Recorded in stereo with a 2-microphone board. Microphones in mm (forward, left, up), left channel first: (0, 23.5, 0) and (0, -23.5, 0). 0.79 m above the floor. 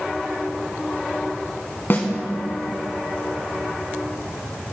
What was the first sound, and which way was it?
A snare drum, 50° left (ahead or behind).